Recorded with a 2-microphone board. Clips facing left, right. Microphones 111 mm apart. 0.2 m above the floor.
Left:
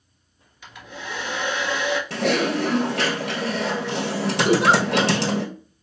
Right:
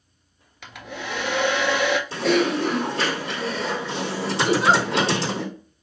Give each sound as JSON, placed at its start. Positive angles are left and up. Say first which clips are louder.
{"t": 0.6, "sound": "a hair dryer", "louder": "right 3 dB", "side_deg": -80, "distance_m": 0.6}
{"t": 2.1, "sound": "typing on a keyboard", "louder": "even", "side_deg": 75, "distance_m": 1.2}
{"t": 4.5, "sound": "a giggle", "louder": "left 2 dB", "side_deg": 20, "distance_m": 1.7}